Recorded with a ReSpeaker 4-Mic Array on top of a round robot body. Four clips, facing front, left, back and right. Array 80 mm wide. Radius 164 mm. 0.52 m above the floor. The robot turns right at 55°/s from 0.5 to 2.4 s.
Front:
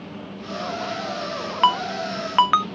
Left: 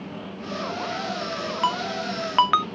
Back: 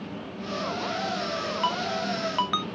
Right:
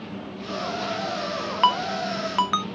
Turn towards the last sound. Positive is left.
turn(degrees=20)